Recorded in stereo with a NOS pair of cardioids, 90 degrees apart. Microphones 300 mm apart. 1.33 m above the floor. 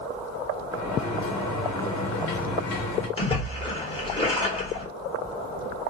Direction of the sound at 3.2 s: 20° left.